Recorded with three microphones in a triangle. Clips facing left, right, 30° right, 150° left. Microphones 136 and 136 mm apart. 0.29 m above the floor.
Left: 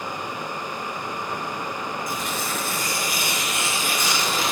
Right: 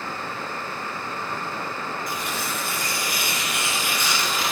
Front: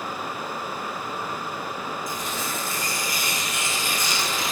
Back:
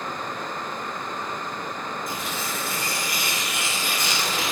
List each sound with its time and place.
2.1 s tearing paper: 130° left, 2.5 m